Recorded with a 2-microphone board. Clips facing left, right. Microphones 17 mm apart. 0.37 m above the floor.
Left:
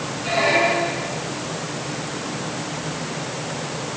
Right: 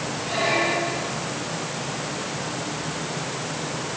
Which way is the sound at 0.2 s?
80° left.